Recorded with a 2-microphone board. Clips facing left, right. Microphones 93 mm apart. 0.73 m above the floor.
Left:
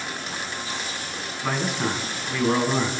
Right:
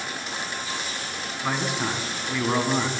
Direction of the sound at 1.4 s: 5° right (ahead or behind).